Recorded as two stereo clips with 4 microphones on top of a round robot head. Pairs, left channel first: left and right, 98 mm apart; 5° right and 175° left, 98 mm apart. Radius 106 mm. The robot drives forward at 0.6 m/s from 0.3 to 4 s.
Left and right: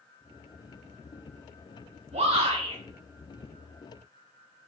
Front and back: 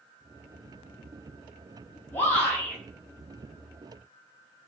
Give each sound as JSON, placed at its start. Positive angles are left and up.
{"t": 2.1, "sound": "a shout", "azimuth_deg": -75, "distance_m": 6.0}